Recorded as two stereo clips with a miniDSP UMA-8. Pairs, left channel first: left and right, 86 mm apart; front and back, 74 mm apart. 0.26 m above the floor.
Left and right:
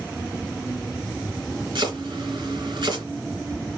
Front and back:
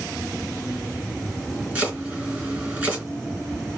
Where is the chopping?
115° right, 3 m.